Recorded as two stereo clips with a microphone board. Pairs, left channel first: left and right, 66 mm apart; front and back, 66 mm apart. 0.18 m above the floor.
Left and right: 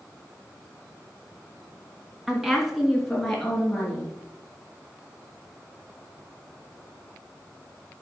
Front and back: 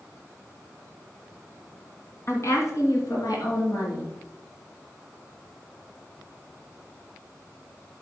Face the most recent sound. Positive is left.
turn(degrees=15)